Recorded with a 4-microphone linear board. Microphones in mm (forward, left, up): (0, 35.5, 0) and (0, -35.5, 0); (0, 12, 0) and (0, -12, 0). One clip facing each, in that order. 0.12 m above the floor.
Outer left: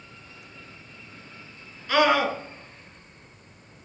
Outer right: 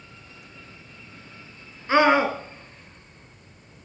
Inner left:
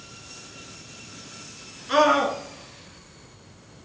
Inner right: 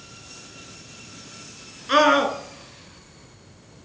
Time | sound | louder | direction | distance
1.9 | a scream | outer right 3 dB, inner right 2 dB | 25° right (ahead or behind) | 1.4 m